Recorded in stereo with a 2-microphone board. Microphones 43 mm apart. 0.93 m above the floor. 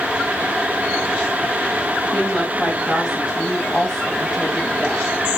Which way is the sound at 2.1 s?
Centre (ahead or behind).